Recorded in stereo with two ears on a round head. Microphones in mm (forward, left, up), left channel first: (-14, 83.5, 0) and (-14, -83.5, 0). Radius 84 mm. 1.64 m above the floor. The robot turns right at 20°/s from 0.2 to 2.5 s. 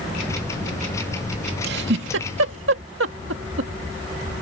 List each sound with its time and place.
1.6 s a giggle: 65° right (ahead or behind); by 3.7 s 75° right (ahead or behind)